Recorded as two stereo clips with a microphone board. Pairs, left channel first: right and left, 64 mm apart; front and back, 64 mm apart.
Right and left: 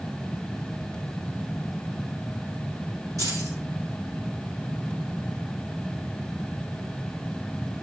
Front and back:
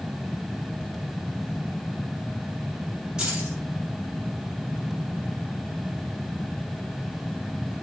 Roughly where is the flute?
I don't hear a flute.